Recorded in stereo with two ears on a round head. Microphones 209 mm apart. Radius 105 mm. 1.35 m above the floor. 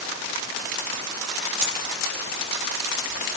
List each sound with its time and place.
1.6 s a dropped coin: 5° right (ahead or behind), 1.1 m